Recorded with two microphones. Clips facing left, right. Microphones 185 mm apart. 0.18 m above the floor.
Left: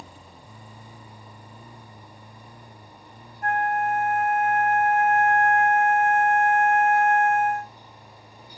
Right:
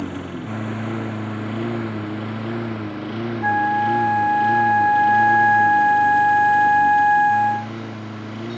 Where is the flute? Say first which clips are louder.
Right 2 dB; 35° right (ahead or behind).